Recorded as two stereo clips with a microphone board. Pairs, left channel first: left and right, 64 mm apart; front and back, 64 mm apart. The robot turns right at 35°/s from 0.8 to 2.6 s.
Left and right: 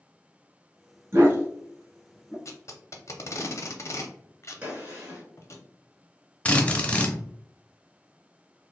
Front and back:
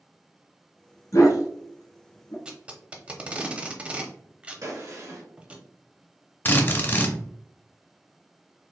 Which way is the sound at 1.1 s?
40° right.